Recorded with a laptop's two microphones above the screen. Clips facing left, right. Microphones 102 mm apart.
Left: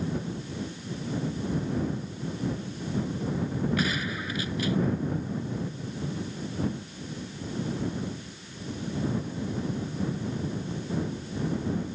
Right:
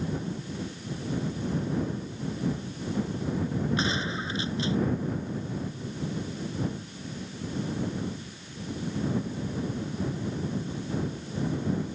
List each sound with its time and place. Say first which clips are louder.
3.8 s a gunshot: even; 25° right (ahead or behind)